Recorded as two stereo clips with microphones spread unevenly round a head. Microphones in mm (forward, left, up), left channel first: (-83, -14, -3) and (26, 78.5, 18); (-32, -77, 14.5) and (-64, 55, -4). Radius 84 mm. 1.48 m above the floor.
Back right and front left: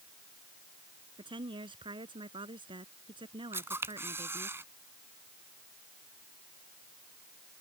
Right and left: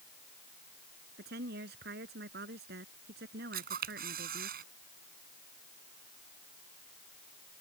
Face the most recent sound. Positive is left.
turn(degrees=115)